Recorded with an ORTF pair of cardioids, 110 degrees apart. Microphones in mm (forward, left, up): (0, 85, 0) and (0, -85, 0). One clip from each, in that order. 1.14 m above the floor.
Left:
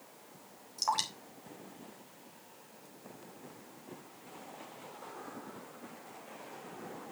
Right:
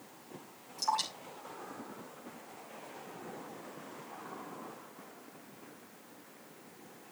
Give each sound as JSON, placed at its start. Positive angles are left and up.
{"t": 0.8, "sound": "dripping", "azimuth_deg": 35, "distance_m": 3.5}